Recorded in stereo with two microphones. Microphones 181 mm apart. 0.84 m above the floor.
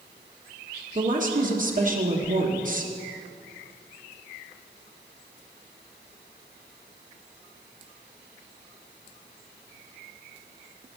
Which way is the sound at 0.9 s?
45° right (ahead or behind).